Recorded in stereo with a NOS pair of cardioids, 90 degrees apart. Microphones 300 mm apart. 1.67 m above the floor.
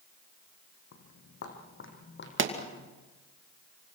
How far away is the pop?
About 2.5 m.